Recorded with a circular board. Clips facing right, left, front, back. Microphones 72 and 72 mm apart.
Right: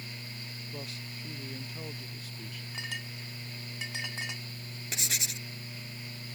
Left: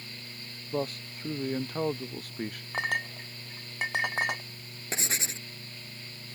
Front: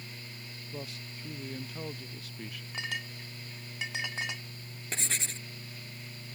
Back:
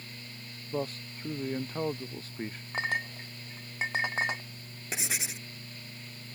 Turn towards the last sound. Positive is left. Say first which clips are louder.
# left 4 dB, back 1 dB
turn(degrees=105)